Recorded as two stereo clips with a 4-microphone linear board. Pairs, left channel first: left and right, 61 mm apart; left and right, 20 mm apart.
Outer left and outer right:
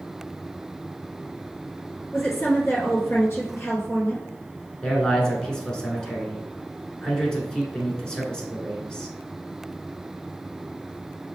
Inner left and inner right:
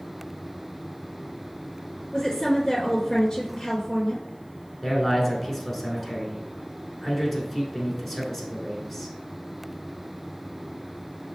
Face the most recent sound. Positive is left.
turn(degrees=15)  # may be behind; listen again after turning